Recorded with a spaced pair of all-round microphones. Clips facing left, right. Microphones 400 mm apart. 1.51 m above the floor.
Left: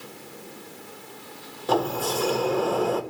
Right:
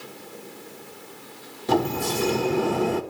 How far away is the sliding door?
About 0.9 m.